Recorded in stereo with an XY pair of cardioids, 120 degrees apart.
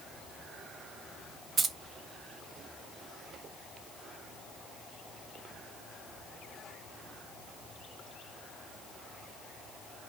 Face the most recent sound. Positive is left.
turn(degrees=-35)